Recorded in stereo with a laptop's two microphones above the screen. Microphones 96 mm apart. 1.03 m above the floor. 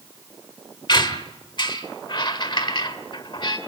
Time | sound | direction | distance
0.9 | a squeak | 50° left (ahead or behind) | 1.4 m